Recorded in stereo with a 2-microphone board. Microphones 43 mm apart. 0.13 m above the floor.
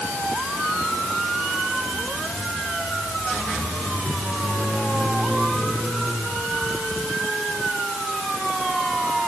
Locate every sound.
Only background noise.